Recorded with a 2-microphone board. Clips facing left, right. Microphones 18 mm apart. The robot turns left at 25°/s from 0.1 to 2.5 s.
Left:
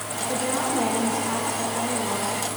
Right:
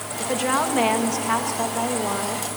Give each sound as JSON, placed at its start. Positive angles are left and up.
{"t": 0.2, "sound": "a woman speaking", "azimuth_deg": -75, "distance_m": 2.0}